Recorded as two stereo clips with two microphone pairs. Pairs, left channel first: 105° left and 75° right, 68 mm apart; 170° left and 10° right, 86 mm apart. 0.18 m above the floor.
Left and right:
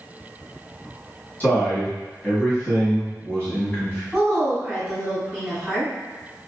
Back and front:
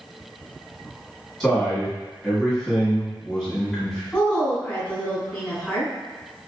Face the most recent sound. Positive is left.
turn(degrees=-170)